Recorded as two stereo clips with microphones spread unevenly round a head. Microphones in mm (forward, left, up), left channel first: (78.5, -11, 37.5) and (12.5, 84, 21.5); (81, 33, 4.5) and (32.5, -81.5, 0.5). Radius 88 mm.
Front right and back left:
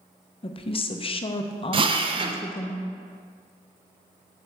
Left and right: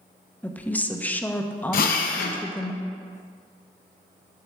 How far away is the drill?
About 0.7 m.